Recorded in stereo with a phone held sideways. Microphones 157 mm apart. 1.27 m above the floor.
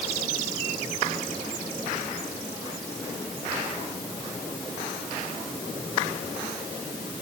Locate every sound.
Only background noise.